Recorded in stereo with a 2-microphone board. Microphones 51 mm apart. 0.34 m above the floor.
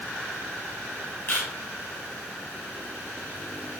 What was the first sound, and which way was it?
A camera shutter, 40° left (ahead or behind).